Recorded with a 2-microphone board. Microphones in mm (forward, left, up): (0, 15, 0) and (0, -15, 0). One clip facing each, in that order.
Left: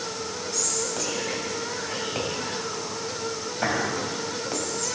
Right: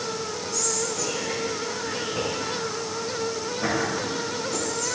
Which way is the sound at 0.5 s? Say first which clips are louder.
Right 2 dB; 45° left (ahead or behind).